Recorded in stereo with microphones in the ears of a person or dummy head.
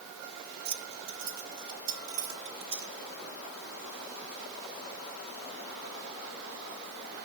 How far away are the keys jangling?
About 2.5 m.